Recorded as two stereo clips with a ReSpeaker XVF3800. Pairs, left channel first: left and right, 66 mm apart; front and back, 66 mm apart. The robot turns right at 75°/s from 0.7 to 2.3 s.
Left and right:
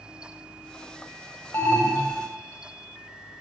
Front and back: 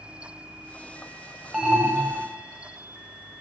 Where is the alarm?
100° left, 1.3 m; by 2.2 s 155° left, 1.3 m.